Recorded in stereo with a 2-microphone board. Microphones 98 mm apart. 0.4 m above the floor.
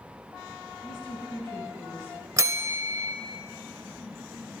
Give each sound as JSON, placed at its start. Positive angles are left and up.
{"t": 0.8, "sound": "a woman speaking", "side_deg": 60, "distance_m": 3.0}
{"t": 2.4, "sound": "a bell", "side_deg": -30, "distance_m": 0.7}